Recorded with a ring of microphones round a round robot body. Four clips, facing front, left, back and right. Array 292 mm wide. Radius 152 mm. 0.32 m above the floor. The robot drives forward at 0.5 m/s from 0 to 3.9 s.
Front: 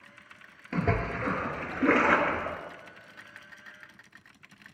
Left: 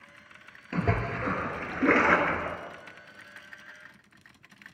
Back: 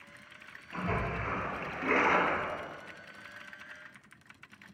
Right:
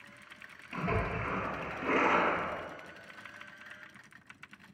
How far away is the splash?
About 1.9 m.